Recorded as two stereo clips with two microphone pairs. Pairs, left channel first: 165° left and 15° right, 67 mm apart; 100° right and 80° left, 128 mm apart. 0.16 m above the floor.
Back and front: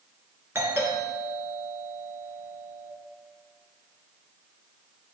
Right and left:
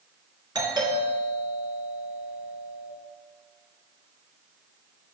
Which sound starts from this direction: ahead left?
A doorbell, at 0.6 s.